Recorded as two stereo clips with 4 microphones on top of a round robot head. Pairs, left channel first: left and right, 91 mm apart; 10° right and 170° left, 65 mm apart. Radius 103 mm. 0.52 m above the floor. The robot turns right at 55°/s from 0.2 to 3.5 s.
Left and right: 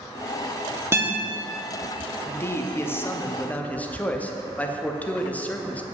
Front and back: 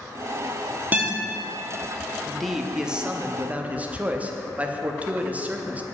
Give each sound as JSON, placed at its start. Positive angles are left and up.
{"t": 0.9, "sound": "a guitar", "azimuth_deg": -140, "distance_m": 1.4}
{"t": 2.2, "sound": "a man speaking", "azimuth_deg": 75, "distance_m": 0.7}